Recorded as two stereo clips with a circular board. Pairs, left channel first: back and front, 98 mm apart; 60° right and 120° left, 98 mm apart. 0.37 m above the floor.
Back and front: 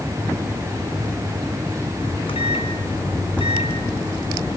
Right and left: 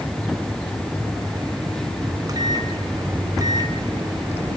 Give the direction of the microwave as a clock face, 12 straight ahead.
6 o'clock.